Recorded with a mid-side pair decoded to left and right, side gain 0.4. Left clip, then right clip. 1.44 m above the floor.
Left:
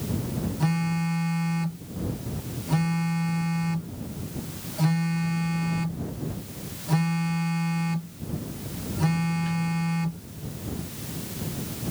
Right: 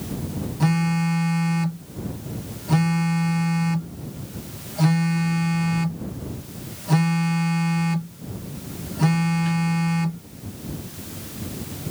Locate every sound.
0.6 s a phone buzzing: 40° right